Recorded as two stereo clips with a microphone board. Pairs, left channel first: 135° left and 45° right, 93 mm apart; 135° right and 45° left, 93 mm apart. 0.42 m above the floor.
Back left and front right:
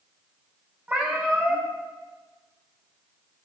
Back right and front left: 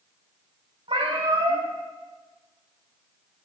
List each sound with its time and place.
0.9 s a cat meowing: 30° left, 3.5 m